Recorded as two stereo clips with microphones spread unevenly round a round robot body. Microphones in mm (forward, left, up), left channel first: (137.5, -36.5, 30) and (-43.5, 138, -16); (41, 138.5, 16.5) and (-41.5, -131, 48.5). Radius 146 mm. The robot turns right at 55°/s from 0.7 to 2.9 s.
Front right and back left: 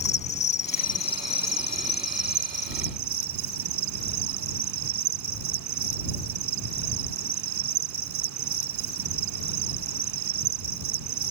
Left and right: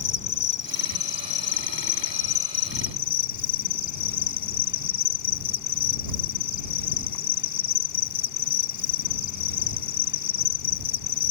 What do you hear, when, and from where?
0.0 s an insect: 10° left; by 11.3 s 130° left